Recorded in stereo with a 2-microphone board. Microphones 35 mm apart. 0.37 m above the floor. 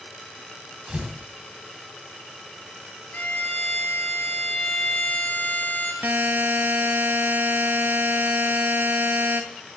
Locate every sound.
0.9 s tearing paper: 25° right (ahead or behind), 2.5 m
3.1 s a violin: 65° left (ahead or behind), 3 m
6.0 s a buzzer: 70° right (ahead or behind), 0.9 m